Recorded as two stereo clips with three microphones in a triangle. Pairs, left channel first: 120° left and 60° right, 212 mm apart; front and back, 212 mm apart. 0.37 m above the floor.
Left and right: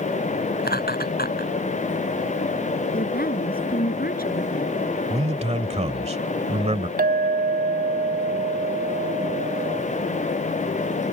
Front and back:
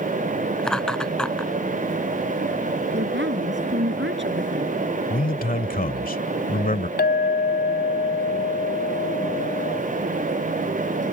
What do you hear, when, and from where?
0.6 s laughter: 85° left
2.9 s a woman speaking: 160° left
5.1 s a man speaking: 20° right
7.0 s a clink: 25° right